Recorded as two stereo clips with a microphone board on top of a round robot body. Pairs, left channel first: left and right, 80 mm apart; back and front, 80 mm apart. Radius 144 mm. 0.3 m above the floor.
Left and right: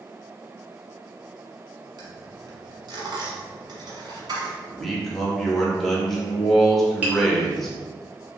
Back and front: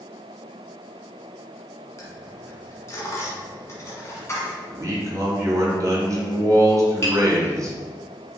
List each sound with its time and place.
2.0 s a dropped coin: 125° right, 1.1 m
4.7 s a man speaking: 5° left, 1.4 m
7.0 s tapping: 150° right, 1.8 m